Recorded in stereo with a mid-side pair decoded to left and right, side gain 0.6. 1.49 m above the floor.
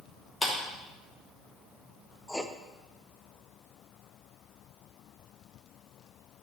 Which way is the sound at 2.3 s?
5° left.